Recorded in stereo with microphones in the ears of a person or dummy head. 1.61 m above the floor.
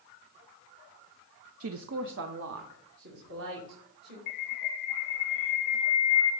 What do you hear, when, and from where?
1.6 s a woman speaking: 70° right (ahead or behind), 0.5 m; by 4.2 s 55° right (ahead or behind), 3 m
4.3 s a bird: 45° left (ahead or behind), 1.0 m